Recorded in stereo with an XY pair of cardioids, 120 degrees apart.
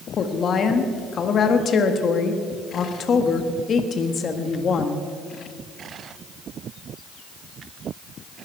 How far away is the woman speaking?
About 1.5 m.